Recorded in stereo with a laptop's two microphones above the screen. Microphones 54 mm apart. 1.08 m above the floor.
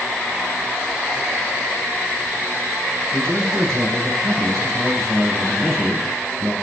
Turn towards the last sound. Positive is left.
turn(degrees=-70)  # may be behind; listen again after turning